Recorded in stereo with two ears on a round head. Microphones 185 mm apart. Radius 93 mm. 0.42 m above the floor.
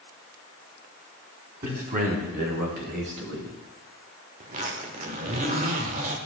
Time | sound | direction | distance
1.6 | a man speaking | 40° right (ahead or behind) | 3 m
4.4 | a zipper | 35° right (ahead or behind) | 1.1 m